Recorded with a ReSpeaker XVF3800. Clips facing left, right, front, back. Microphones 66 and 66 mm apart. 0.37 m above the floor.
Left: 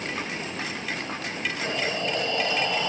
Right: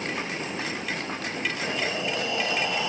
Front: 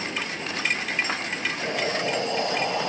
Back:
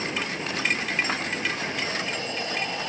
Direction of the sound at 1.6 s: 10° right.